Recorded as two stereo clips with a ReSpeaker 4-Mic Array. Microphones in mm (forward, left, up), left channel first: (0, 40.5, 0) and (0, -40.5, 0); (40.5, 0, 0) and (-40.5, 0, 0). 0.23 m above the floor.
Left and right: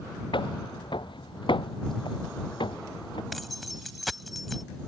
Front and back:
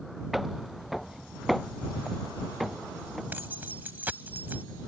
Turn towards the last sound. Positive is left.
turn(degrees=180)